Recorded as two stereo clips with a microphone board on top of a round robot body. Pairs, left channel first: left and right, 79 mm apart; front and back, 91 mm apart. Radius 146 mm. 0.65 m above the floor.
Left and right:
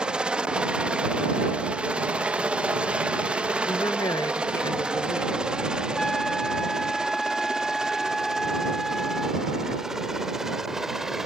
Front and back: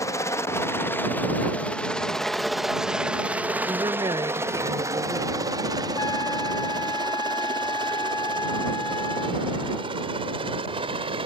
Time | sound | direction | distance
0.0 | a helicopter | 20° right | ?
3.7 | a woman speaking | 135° left | ?
6.0 | a trumpet | 10° left | ?